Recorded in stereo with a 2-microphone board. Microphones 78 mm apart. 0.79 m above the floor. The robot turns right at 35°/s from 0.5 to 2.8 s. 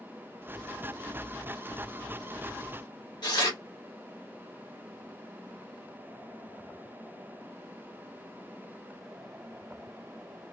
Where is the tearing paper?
65° left (ahead or behind), 1.1 m.